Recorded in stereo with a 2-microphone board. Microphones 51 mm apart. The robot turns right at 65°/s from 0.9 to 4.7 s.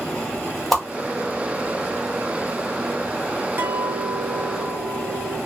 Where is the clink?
50° right, 0.8 m; by 5.4 s 20° left, 0.8 m.